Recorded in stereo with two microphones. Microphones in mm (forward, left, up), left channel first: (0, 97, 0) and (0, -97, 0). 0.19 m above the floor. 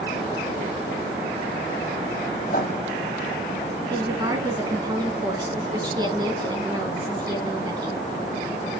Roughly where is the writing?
Left.